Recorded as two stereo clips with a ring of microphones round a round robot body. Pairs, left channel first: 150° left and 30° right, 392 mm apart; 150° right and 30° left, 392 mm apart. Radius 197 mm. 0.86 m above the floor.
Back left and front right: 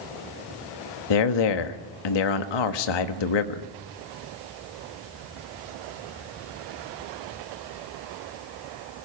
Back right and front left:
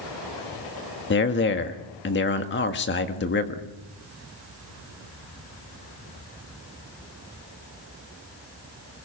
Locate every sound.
1.1 s a man speaking: 150° left, 1.6 m